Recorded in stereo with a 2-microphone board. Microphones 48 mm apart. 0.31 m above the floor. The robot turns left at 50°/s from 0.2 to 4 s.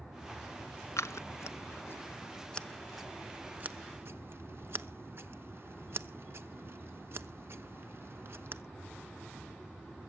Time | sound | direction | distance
1.0 | scissors | 85° left | 0.8 m